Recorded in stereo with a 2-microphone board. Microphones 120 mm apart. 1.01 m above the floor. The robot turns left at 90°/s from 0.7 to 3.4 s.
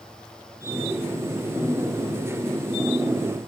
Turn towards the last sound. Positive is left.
No sound to turn to.